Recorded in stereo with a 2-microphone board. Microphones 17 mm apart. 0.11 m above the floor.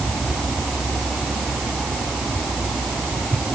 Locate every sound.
Only background noise.